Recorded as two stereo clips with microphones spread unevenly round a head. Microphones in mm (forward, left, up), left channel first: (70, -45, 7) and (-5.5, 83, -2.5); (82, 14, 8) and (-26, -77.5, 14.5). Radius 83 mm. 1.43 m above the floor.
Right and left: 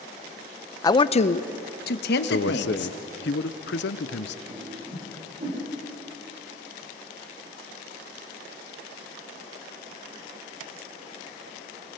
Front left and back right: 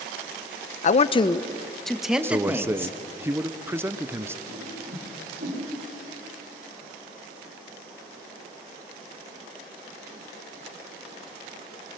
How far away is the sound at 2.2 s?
About 0.9 m.